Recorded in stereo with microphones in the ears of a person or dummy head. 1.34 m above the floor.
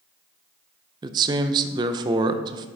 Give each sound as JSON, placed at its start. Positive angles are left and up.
{"t": 1.0, "sound": "a man speaking", "side_deg": -25, "distance_m": 0.6}